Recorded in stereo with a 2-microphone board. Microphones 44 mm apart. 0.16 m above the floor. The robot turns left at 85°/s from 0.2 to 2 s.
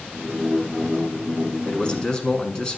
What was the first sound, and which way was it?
A man speaking, 35° left (ahead or behind).